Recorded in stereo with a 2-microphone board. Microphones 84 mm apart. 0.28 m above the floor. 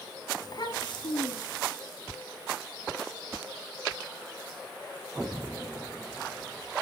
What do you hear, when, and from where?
0.4 s a child speaking: 50° left (ahead or behind), 1.1 m; by 1.8 s 75° left (ahead or behind), 2.5 m